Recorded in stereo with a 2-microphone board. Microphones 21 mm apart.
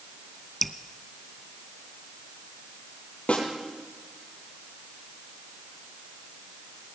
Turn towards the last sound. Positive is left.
turn(degrees=70)  # may be behind; listen again after turning